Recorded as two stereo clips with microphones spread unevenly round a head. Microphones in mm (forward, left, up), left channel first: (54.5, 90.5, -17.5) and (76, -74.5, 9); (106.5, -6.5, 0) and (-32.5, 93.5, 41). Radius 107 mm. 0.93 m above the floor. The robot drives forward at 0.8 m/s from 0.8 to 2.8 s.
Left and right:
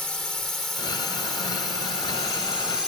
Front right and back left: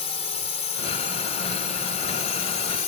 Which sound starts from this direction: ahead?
A drone, at 0.0 s.